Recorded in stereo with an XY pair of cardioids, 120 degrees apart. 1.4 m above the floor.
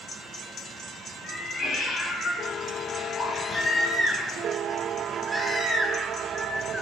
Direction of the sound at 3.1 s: 20° left.